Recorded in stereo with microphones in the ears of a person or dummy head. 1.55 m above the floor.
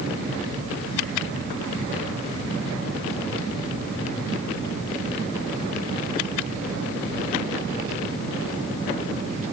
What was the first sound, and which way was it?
Only background noise.